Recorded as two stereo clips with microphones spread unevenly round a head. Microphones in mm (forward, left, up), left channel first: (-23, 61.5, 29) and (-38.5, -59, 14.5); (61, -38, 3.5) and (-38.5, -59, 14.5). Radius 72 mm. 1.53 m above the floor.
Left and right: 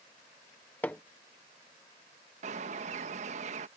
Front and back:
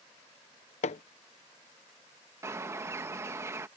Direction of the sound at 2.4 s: 115° right.